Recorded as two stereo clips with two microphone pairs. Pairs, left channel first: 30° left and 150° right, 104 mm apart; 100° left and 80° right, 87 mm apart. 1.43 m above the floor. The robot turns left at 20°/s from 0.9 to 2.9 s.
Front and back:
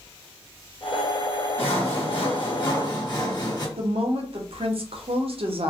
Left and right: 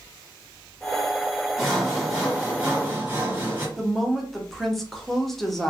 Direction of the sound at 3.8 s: 175° right.